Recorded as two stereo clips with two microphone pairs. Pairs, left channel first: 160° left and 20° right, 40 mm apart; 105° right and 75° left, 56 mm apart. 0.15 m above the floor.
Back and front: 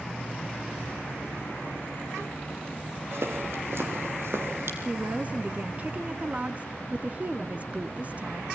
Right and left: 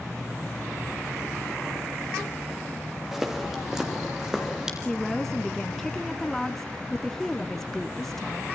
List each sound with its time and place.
3.1 s footsteps: 10° right, 5.5 m; by 4.8 s 5° right, 6.5 m
4.8 s a woman speaking: 25° right, 1.3 m